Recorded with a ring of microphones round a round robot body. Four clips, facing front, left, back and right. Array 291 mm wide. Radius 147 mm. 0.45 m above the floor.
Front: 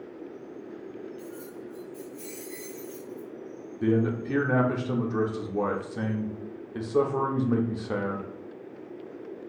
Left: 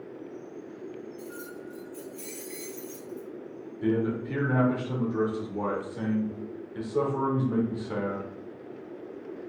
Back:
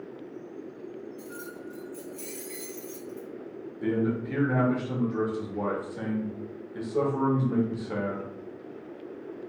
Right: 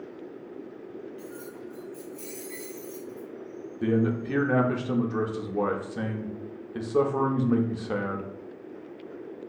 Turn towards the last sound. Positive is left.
turn(degrees=-55)